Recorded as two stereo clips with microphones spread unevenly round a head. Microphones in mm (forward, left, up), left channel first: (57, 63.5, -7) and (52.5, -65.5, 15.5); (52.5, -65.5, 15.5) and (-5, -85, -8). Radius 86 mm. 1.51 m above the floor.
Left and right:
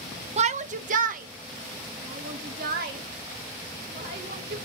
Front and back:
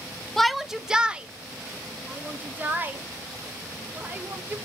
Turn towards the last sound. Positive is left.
turn(degrees=-105)